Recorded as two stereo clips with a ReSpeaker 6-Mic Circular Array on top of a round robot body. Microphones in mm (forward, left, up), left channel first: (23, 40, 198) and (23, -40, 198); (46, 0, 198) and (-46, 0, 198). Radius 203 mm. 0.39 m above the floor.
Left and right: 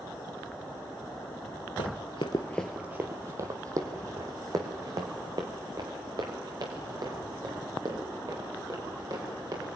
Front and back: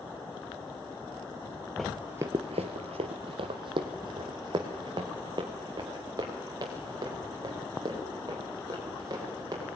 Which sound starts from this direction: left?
Running footsteps, at 1.8 s.